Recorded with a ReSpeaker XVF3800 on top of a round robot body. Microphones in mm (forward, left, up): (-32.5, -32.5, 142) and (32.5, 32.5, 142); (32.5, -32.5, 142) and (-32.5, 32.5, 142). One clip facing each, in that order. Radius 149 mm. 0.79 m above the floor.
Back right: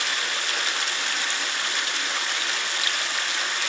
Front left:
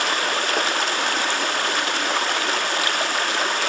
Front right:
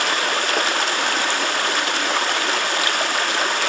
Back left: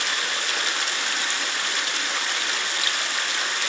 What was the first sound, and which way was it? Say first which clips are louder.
Running water: front left 7 dB, front right 7 dB; straight ahead.